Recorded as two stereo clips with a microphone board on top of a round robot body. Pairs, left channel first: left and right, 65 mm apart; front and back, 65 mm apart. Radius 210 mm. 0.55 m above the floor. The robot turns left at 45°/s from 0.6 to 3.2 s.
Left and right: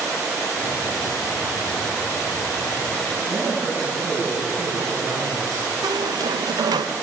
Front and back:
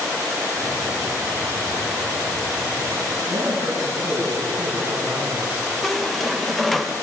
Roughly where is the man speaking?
Behind right.